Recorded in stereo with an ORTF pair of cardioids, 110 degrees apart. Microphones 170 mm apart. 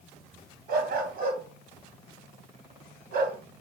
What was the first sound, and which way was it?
A dog barking, 65° right.